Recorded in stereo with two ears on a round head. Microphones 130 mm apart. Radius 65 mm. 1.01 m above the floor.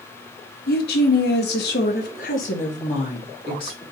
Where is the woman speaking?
70° left (ahead or behind), 1.2 m; by 3.8 s 30° left (ahead or behind), 1.7 m.